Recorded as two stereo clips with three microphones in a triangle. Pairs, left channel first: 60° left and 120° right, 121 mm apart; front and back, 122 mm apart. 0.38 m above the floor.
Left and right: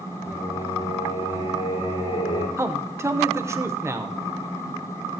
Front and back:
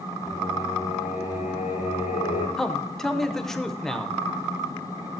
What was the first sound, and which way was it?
Singing, 30° left.